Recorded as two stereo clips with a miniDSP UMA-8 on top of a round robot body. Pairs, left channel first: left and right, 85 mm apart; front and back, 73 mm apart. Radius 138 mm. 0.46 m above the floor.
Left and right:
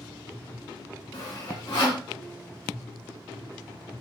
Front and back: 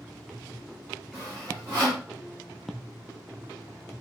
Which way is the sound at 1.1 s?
120° left.